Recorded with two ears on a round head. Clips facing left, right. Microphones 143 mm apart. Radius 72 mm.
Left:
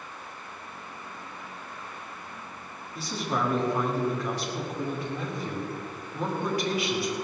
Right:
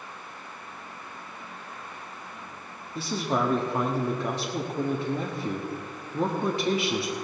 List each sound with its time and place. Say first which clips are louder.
3.0 s a man speaking: right 3 dB; 25° right (ahead or behind), 1.2 m